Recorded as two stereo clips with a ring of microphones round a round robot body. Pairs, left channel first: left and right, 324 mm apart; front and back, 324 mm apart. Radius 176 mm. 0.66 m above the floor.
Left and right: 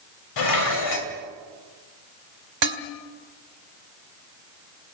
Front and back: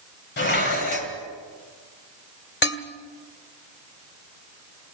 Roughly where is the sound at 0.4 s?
Ahead left.